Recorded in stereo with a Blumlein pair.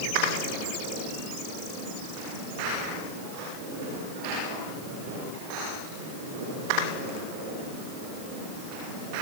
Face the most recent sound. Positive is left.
No sound to turn to.